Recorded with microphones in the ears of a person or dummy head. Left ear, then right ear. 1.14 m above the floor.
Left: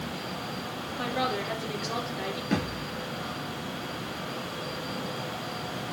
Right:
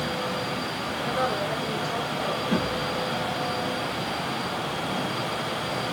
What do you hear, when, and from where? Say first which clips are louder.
1.0 s a woman speaking: right 2 dB; 60° left (ahead or behind), 4 m
2.5 s a thud: right 5 dB; 60° left (ahead or behind), 5.5 m